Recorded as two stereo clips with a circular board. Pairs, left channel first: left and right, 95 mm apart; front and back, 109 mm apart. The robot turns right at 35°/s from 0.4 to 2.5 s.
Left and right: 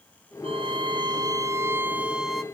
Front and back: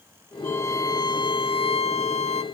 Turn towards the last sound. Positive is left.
turn(degrees=0)